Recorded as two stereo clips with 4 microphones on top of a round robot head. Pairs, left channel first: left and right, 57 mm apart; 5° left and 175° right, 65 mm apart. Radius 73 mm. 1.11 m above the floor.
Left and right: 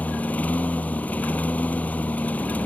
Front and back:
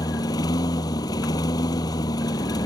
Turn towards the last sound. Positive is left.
turn(degrees=25)